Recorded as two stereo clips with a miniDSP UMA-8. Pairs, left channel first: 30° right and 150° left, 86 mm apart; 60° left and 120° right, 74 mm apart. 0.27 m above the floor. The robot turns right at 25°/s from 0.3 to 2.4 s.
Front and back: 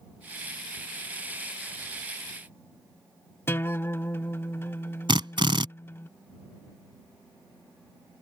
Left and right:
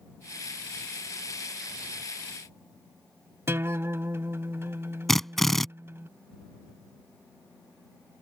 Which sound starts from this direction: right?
A guitar, at 3.5 s.